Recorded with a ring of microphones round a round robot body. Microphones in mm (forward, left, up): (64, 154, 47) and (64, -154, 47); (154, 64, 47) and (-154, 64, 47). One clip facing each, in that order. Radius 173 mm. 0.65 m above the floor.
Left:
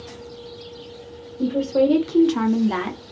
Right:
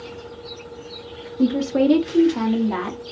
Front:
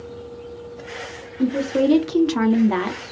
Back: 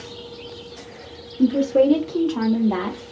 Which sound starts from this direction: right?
A woman speaking, at 1.4 s.